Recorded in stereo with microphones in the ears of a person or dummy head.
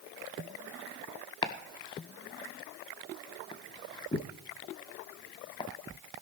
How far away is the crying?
I don't hear crying.